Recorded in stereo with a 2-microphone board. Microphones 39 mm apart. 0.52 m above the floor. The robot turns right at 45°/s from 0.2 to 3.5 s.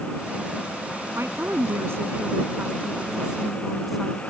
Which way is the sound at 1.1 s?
110° right.